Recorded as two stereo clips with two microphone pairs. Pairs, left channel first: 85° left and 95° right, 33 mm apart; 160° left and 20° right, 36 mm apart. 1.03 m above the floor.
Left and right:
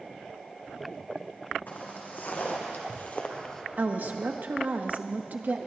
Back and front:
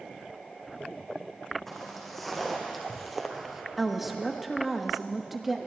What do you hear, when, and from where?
1.7 s footsteps: 75° left, 3.5 m; by 3.6 s 50° left, 1.0 m
3.8 s a woman speaking: 105° right, 1.2 m